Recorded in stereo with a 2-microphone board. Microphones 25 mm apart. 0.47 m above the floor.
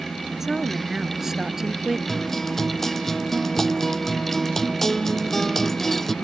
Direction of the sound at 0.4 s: 10° right (ahead or behind).